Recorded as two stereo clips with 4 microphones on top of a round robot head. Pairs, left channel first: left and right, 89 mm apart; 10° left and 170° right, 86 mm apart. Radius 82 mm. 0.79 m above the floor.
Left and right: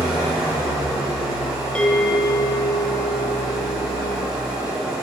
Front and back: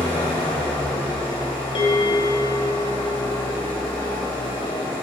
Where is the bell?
15° left, 1.4 m.